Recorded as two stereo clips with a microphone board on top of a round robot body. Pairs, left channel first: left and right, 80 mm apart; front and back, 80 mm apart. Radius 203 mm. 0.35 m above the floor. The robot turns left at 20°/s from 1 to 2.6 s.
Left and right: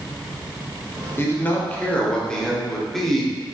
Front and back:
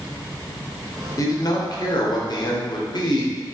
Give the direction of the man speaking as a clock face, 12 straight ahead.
11 o'clock.